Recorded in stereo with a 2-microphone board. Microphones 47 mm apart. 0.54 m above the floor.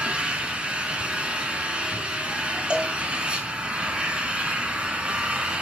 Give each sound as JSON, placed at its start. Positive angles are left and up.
{"t": 0.0, "sound": "an engine running", "side_deg": -20, "distance_m": 3.0}
{"t": 2.7, "sound": "a cowbell", "side_deg": -25, "distance_m": 1.7}